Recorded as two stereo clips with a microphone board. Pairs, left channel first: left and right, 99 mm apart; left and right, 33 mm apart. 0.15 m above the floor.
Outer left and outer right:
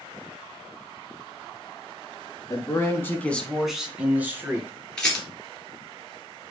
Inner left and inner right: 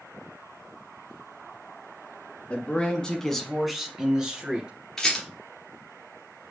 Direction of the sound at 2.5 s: 35° left (ahead or behind).